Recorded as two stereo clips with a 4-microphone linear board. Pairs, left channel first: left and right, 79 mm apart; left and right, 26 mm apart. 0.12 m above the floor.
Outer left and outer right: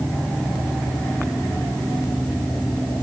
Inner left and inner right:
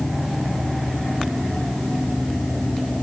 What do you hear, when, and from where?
Only background noise.